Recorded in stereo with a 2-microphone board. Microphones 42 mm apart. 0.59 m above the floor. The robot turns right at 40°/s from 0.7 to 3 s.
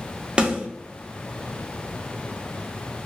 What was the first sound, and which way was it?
A snare drum, 25° right (ahead or behind).